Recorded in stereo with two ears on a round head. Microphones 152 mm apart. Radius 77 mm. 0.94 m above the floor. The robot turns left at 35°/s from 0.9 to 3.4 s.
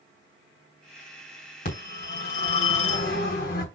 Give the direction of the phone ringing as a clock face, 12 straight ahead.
8 o'clock.